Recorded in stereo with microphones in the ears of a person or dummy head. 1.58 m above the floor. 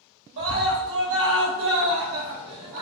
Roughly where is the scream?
Right.